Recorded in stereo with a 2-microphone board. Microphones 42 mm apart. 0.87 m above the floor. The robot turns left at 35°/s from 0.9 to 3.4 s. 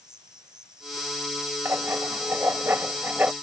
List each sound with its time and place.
0.0 s an insect: 160° right; by 3.4 s 110° left
1.6 s writing: 75° right; by 3.3 s 135° right